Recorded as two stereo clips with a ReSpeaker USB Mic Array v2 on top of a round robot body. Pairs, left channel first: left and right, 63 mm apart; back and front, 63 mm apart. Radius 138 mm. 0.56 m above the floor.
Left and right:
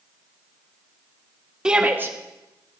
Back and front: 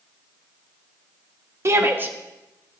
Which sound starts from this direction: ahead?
A shout, at 1.6 s.